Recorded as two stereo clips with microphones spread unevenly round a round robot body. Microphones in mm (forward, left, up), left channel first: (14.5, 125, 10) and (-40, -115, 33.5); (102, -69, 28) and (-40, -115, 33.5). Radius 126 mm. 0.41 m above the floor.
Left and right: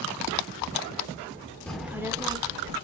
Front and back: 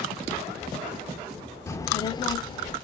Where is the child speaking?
15° left, 0.6 m; by 2.8 s 35° right, 0.9 m.